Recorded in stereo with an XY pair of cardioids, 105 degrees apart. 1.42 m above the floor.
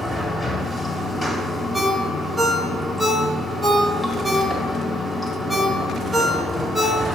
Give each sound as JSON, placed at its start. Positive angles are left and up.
{"t": 0.0, "sound": "running water", "azimuth_deg": 10, "distance_m": 1.9}
{"t": 1.7, "sound": "a ringtone", "azimuth_deg": 0, "distance_m": 1.3}